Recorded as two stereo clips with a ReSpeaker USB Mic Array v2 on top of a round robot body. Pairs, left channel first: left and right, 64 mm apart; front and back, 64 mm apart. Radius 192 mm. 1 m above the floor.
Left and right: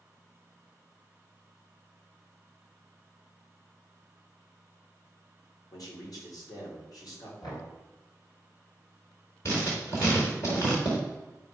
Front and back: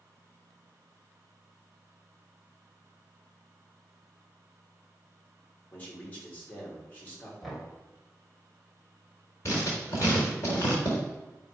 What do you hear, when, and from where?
5.7 s a man speaking: 65° left, 2.5 m
7.4 s knocking: 90° left, 2.5 m
9.4 s writing: 45° left, 0.9 m